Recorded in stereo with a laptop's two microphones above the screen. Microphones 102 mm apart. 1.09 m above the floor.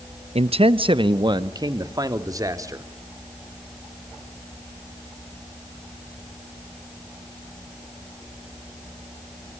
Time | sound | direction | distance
0.3 | a man speaking | 80° right | 0.7 m